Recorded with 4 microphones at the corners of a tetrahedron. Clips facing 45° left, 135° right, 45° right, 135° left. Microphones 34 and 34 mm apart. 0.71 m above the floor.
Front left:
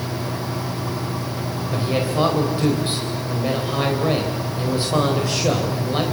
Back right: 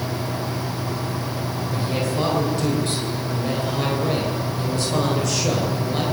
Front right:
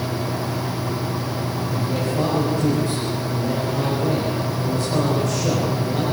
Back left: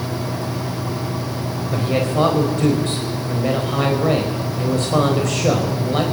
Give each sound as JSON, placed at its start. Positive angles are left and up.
{"t": 1.7, "sound": "a man speaking", "azimuth_deg": 110, "distance_m": 4.0}